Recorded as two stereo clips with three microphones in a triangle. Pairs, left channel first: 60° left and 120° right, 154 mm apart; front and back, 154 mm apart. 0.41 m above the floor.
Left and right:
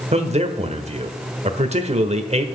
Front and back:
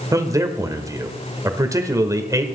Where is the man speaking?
120° right, 1.1 m.